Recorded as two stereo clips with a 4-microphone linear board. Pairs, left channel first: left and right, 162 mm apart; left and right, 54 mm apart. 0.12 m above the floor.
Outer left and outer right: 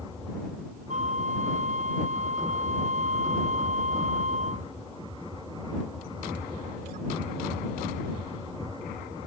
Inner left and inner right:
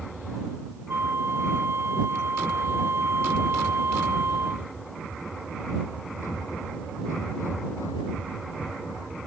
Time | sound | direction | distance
0.9 | a flute | 50° right (ahead or behind) | ?